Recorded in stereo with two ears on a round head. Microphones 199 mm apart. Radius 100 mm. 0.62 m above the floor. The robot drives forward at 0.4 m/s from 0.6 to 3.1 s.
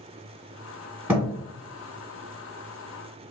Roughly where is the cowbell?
I don't hear a cowbell.